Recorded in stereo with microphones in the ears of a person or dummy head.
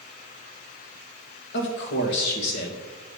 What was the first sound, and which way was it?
A man speaking, 60° left (ahead or behind).